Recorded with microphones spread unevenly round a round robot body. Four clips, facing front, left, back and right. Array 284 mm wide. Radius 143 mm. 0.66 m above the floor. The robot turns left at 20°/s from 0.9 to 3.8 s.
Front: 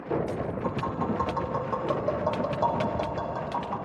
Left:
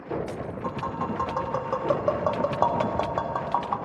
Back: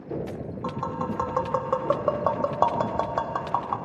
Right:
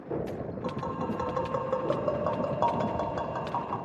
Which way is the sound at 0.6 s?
165° right.